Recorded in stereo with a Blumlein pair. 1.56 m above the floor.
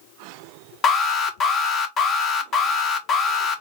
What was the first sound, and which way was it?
An alarm, 25° left.